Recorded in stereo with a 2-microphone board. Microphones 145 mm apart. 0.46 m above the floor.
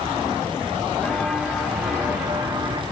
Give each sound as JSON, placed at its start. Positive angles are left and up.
{"t": 1.0, "sound": "footsteps", "side_deg": 10, "distance_m": 2.5}